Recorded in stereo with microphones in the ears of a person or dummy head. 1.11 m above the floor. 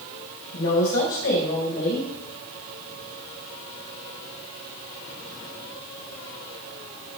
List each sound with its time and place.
0.5 s a woman speaking: 75° left (ahead or behind), 4 m